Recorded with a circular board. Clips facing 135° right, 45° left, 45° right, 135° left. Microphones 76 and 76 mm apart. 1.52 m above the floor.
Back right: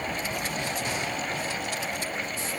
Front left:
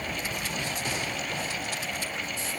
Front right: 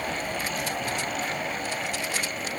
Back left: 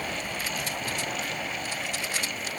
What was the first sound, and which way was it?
Only background noise.